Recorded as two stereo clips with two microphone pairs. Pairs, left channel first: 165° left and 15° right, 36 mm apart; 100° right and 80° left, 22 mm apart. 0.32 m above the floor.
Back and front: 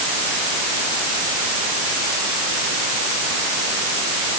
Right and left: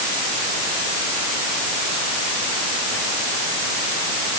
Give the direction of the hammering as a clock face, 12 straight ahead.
No hammering in this recording.